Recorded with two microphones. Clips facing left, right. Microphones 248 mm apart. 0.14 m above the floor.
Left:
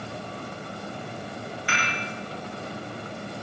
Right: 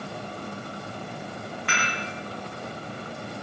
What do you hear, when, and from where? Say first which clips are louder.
1.7 s dishes clattering: even; 60° right (ahead or behind), 8 m